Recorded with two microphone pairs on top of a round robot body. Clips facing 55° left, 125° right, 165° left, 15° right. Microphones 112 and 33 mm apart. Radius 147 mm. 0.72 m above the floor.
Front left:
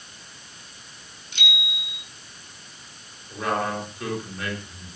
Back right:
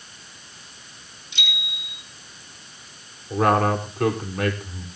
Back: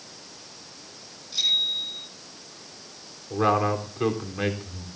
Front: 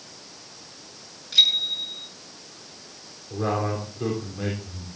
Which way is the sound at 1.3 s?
15° left.